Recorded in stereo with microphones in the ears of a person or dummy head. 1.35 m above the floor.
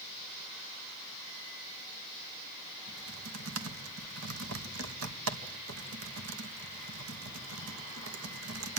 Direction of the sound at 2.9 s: 80° right.